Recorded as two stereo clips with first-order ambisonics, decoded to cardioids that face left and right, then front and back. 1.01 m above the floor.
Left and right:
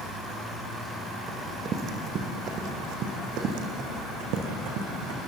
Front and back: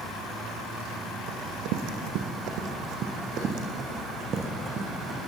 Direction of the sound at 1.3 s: 160° right.